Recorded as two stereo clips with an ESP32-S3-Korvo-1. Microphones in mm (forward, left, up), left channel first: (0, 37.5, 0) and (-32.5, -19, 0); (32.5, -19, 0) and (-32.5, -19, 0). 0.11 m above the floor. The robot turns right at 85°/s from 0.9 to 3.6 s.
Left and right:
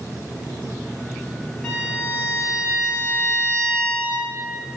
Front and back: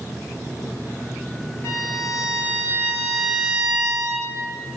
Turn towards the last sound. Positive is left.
turn(degrees=145)